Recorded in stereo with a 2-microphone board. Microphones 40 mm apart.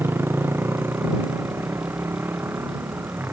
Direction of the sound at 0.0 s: 70° right (ahead or behind).